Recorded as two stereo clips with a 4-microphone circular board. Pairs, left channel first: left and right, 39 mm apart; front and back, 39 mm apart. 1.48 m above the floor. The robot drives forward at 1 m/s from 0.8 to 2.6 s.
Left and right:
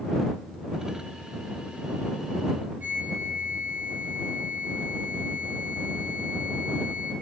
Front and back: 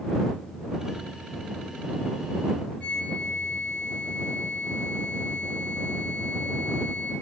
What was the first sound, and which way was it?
A flute, 55° right.